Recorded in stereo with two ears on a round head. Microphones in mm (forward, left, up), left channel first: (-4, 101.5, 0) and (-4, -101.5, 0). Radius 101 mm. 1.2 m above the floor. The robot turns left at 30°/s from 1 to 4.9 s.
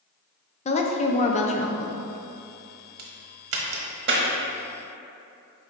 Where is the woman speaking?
30° left (ahead or behind), 0.6 m.